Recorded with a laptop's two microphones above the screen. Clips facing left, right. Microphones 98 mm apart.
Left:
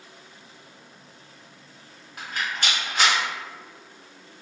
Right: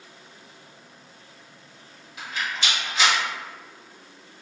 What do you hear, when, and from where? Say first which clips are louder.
2.2 s a rattle: even; 50° left (ahead or behind), 1.0 m